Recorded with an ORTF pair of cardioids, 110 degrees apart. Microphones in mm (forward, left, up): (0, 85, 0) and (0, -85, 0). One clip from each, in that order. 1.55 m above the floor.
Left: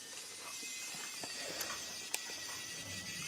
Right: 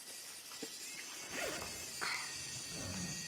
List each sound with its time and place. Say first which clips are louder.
1.3 s a zipper: right 3 dB; 60° right, 0.7 m